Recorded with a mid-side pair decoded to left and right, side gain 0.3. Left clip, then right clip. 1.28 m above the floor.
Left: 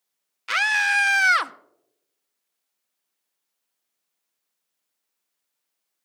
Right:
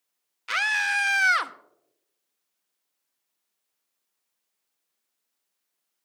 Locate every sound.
0.5 s a scream: 30° left, 0.8 m